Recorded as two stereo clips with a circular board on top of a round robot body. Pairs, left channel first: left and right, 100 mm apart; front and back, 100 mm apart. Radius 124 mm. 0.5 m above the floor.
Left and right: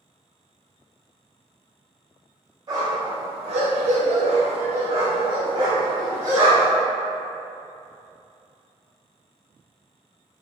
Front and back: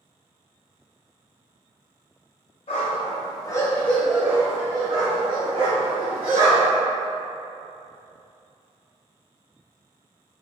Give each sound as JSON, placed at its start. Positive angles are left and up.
{"t": 2.7, "sound": "a dog barking", "azimuth_deg": -35, "distance_m": 0.9}